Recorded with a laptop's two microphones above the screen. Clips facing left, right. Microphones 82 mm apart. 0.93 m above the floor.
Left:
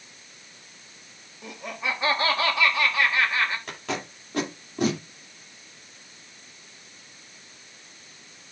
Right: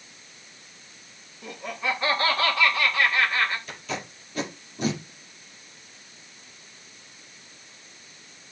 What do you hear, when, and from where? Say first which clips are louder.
1.4 s laughter: right 2 dB; 15° left (ahead or behind), 1.7 m
3.7 s tape being pulled: left 2 dB; 75° left (ahead or behind), 2 m